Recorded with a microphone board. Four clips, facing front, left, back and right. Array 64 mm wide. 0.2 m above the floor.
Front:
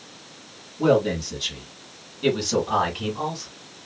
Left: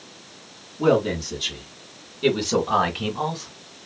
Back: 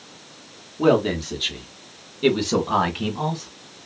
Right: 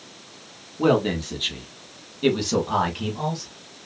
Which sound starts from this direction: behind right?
A man speaking, at 0.8 s.